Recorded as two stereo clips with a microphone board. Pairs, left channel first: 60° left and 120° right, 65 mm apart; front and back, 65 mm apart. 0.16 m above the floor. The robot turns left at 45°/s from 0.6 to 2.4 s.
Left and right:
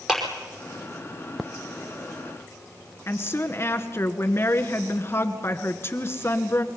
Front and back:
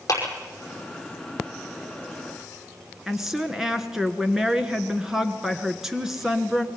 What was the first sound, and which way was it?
A clap, 35° right.